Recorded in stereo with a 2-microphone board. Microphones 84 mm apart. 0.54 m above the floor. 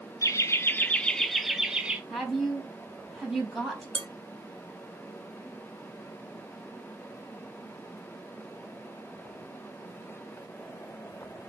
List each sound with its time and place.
0.2 s laughter: 40° left (ahead or behind), 0.8 m; by 2.0 s 15° right (ahead or behind), 1.2 m
2.1 s a woman speaking: centre (ahead or behind), 3 m
4.0 s dishes clattering: 65° right (ahead or behind), 1.5 m